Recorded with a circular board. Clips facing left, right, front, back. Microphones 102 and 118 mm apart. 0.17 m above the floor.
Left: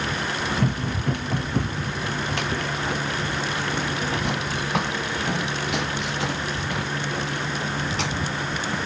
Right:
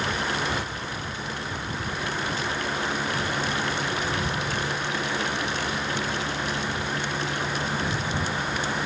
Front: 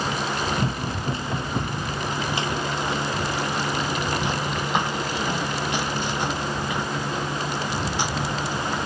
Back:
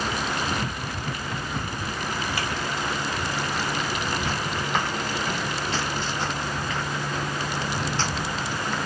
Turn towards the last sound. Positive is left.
turn(degrees=75)